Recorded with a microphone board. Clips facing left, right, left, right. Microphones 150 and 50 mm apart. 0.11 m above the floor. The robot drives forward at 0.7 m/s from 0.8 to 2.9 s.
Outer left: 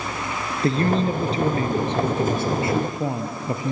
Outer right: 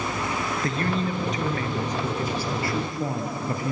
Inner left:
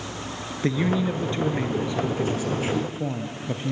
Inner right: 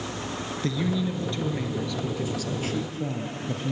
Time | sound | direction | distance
0.6 | a man speaking | 35° left (ahead or behind) | 1.6 m